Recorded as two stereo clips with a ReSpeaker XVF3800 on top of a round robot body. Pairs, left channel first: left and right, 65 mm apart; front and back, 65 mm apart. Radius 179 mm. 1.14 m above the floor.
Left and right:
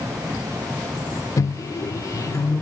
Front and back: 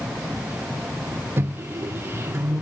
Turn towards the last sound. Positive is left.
turn(degrees=125)